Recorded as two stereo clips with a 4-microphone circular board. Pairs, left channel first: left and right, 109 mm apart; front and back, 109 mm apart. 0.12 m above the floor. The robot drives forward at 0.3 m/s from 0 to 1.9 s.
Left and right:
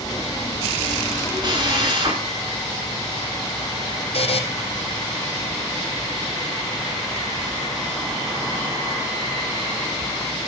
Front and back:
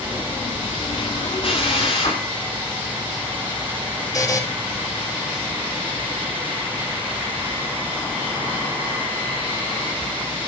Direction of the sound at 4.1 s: 60° left.